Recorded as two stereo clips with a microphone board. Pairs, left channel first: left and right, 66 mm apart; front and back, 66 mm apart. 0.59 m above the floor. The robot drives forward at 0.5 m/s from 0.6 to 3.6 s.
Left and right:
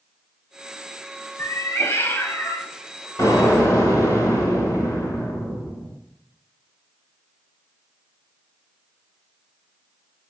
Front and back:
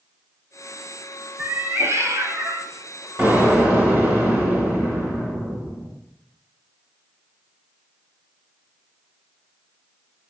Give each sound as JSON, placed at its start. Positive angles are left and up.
{"t": 1.4, "sound": "a cat meowing", "azimuth_deg": 125, "distance_m": 0.6}
{"t": 3.2, "sound": "an explosion", "azimuth_deg": 120, "distance_m": 2.5}